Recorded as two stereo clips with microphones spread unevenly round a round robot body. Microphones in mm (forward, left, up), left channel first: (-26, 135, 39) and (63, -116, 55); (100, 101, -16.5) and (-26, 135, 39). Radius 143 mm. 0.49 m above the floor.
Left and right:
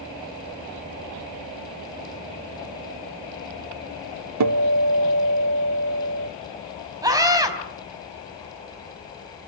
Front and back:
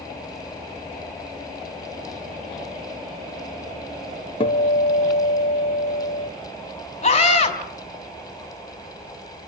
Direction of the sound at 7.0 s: 5° left.